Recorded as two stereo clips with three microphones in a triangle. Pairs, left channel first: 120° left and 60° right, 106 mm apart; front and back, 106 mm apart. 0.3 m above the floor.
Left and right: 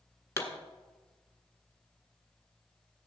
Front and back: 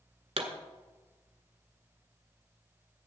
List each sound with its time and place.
0.4 s a pop: 175° right, 1.7 m